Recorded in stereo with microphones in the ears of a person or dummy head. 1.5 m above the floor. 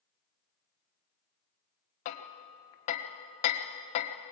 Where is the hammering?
30° left (ahead or behind), 1.1 m.